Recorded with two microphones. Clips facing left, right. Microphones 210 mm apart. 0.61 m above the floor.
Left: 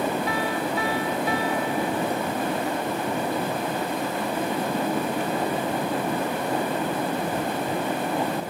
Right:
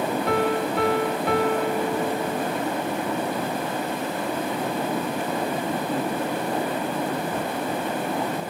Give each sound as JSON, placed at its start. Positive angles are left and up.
{"t": 0.3, "sound": "a piano", "side_deg": -65}